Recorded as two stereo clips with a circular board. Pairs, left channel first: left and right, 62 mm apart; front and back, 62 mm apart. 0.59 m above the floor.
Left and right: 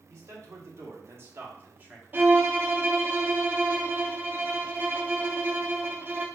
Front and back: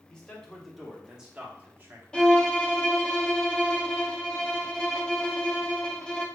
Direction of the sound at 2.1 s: 70° right.